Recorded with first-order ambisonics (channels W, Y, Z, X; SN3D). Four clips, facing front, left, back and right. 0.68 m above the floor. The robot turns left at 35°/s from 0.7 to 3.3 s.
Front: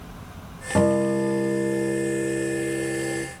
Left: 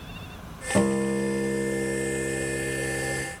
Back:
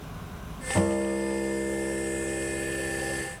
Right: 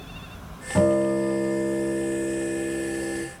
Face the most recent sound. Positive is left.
turn(degrees=-65)